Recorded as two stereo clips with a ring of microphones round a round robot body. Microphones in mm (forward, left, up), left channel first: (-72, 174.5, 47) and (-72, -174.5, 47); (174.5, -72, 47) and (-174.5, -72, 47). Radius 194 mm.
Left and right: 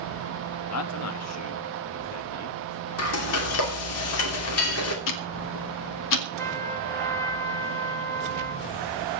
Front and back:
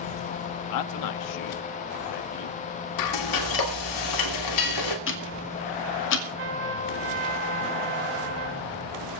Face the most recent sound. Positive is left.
turn(degrees=170)